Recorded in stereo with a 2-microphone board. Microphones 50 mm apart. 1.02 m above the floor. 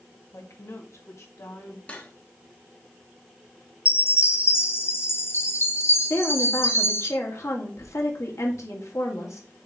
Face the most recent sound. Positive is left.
turn(degrees=75)  # may be behind; listen again after turning